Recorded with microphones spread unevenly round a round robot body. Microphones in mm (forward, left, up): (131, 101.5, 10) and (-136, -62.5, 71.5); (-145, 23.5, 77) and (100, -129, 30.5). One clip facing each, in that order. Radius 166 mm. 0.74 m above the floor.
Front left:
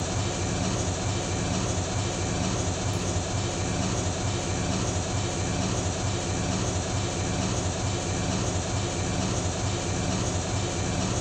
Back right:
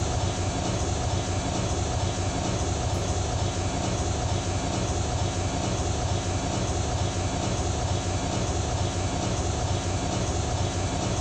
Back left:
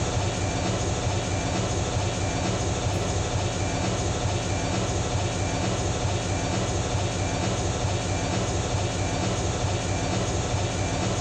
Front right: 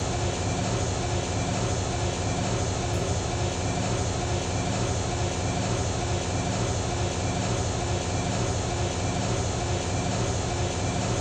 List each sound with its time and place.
0.0 s an engine running: 70° left, 1.4 m